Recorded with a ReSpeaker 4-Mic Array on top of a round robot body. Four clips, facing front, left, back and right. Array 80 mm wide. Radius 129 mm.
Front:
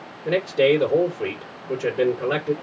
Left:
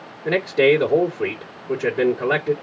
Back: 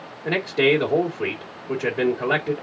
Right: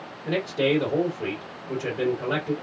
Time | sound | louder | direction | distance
0.2 | a man speaking | left 7 dB, front 2 dB | 125° left | 2.5 m